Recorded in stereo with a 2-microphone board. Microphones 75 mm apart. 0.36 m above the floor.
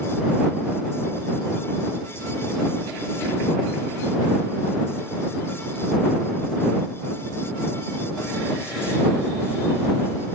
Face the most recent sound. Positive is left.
No sound to turn to.